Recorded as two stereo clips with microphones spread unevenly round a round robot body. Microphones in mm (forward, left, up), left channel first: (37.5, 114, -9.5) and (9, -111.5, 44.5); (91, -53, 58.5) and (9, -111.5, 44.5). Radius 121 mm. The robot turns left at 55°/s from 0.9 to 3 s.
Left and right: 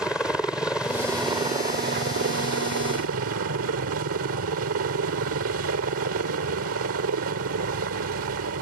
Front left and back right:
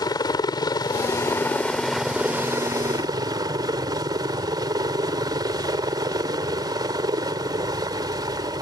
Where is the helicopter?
Straight ahead; by 8.6 s 115° right.